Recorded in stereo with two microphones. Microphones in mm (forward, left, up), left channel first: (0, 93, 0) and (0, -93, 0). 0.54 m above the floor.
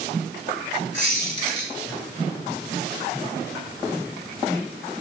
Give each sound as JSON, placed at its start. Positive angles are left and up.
{"t": 0.9, "sound": "a squeak", "side_deg": 80, "distance_m": 1.1}